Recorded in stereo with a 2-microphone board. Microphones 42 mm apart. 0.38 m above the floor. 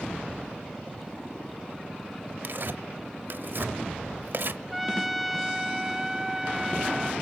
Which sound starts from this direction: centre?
A trumpet, at 4.7 s.